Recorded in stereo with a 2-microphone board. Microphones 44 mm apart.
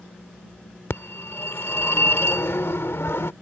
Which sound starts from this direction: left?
A phone ringing, at 0.9 s.